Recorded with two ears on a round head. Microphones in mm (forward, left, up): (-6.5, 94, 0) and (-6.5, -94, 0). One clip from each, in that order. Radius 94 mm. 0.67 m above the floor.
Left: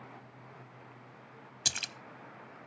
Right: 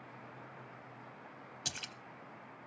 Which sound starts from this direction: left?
A splash, at 1.6 s.